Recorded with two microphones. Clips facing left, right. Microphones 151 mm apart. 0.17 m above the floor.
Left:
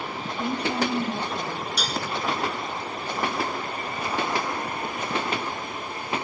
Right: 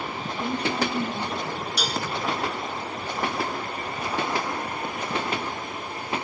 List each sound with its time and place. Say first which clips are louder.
0.4 s a woman speaking: left 1 dB; 30° left (ahead or behind), 3.5 m; by 1.7 s 45° left (ahead or behind), 3.5 m
1.8 s dishes clattering: right 2 dB; 5° right (ahead or behind), 1.4 m